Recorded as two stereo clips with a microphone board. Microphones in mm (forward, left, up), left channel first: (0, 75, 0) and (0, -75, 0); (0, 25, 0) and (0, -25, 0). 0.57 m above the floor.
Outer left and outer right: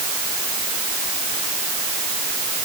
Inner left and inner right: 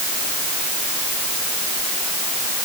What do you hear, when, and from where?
Only background noise.